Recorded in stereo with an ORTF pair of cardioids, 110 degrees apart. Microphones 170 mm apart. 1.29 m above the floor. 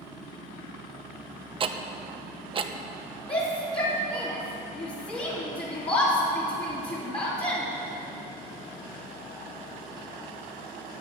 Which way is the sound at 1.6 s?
35° right.